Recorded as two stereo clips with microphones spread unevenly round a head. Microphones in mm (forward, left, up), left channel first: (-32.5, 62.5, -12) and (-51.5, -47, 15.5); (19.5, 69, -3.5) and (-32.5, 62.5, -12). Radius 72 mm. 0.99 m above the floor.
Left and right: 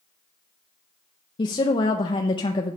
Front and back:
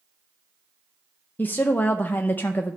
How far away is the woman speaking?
About 0.6 m.